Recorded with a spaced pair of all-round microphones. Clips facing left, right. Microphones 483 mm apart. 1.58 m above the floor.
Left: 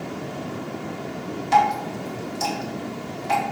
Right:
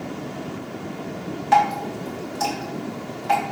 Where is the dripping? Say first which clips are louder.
Right 1 dB; 70° right (ahead or behind), 1.9 m.